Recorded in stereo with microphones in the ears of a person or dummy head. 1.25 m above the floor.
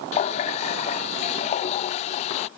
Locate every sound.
0.1 s a running tap: 35° left (ahead or behind)